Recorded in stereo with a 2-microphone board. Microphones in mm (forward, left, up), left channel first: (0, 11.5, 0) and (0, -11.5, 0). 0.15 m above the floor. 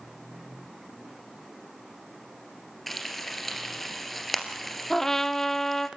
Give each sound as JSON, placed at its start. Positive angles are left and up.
{"t": 2.9, "sound": "frying", "side_deg": 5, "distance_m": 2.5}
{"t": 4.9, "sound": "a trumpet", "side_deg": 15, "distance_m": 0.9}